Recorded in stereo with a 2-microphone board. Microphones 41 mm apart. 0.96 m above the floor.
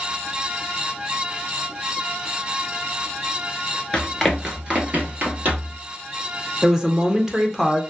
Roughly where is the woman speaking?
Centre.